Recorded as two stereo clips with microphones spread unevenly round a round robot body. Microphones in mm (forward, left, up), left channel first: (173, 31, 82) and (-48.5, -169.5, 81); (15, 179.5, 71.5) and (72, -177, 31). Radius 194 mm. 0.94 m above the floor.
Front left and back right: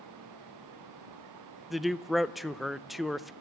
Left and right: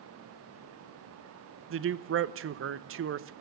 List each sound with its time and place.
1.7 s a man speaking: 50° right, 0.9 m